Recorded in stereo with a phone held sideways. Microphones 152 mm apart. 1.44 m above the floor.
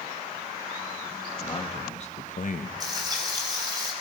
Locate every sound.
1.4 s a man speaking: 35° left (ahead or behind), 2 m; by 2.7 s 65° left (ahead or behind), 1.2 m
2.8 s frying: 25° right (ahead or behind), 5.5 m